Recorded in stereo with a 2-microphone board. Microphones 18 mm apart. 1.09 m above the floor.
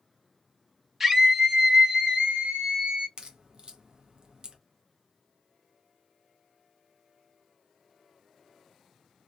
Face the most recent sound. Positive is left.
turn(degrees=-45)  # may be behind; listen again after turning